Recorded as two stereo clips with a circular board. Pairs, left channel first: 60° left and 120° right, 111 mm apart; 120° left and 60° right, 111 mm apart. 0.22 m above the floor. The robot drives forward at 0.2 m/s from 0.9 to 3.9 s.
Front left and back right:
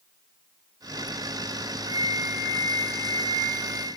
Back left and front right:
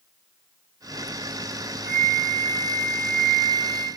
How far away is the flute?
About 1.4 m.